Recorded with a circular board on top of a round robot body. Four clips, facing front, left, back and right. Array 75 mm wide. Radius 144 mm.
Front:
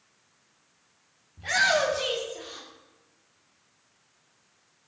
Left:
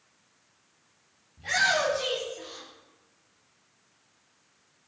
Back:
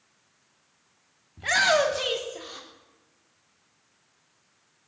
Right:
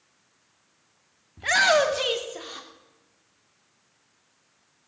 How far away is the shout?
About 2.5 m.